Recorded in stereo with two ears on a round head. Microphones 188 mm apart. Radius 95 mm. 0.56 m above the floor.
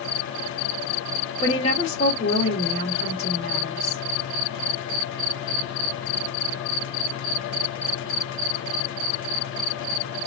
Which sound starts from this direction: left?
A woman speaking, at 1.4 s.